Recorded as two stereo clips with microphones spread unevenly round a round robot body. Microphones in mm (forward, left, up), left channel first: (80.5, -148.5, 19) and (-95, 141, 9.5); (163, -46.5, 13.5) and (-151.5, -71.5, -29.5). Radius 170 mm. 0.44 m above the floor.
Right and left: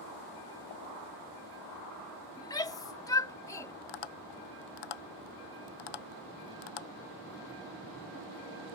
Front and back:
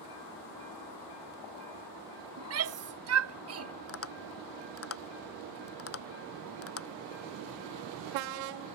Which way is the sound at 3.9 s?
40° right.